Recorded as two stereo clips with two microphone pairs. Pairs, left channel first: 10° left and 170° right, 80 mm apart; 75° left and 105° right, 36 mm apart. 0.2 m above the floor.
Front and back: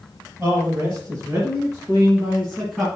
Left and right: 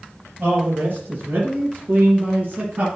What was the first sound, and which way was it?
A man speaking, 125° right.